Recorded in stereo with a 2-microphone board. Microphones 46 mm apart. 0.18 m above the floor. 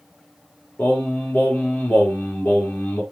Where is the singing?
40° left (ahead or behind), 3.5 m.